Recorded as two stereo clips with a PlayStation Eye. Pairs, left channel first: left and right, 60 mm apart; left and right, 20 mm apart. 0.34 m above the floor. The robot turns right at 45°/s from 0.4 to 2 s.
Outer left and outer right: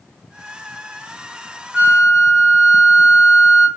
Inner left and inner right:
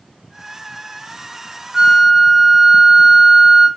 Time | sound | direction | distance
1.7 | a flute | 25° right (ahead or behind) | 1.9 m